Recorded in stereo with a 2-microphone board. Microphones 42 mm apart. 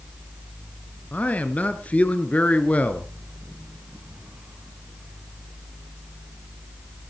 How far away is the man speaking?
About 1.8 m.